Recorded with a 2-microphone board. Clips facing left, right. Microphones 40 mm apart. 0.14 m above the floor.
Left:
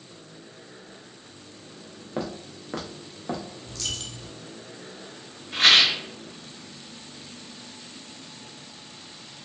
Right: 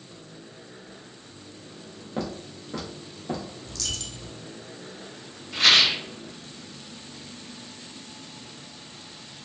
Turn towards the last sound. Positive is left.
turn(degrees=45)  # may be behind; listen again after turning